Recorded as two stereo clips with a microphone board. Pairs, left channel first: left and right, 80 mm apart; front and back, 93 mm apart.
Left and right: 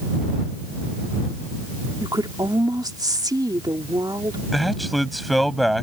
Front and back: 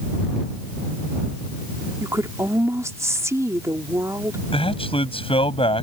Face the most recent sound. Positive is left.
turn(degrees=0)